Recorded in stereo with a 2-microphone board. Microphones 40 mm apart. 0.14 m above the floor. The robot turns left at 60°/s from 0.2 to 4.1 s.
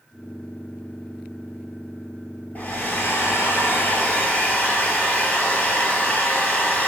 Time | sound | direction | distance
2.5 | a hair dryer | 135° left | 0.8 m